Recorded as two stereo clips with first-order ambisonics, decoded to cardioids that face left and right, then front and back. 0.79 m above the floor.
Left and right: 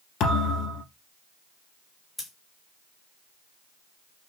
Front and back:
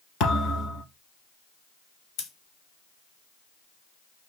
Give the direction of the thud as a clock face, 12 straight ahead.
10 o'clock.